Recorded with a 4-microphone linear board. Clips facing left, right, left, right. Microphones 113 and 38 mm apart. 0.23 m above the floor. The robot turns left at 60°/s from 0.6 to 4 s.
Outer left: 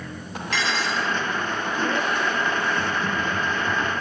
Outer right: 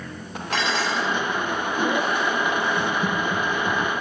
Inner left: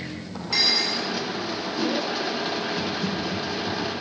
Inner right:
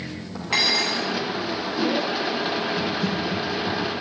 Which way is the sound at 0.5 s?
40° right.